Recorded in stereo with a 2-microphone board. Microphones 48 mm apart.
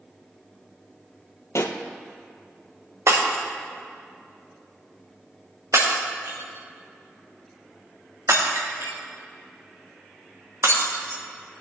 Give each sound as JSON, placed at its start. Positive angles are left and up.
{"t": 1.6, "sound": "a pop", "side_deg": 85, "distance_m": 1.1}
{"t": 3.1, "sound": "breaking glass", "side_deg": -75, "distance_m": 3.0}